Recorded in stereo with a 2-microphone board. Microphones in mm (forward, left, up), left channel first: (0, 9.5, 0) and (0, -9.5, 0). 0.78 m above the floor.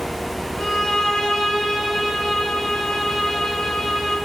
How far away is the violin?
About 3.5 m.